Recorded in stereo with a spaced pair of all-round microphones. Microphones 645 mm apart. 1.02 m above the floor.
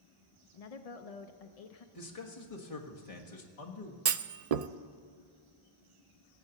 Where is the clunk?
70° right (ahead or behind), 0.6 m.